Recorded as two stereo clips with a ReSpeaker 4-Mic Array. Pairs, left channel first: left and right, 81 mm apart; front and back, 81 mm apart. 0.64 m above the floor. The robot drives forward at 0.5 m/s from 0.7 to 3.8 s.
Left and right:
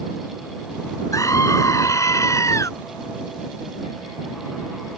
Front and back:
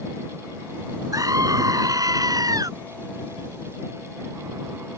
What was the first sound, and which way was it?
A scream, 135° left.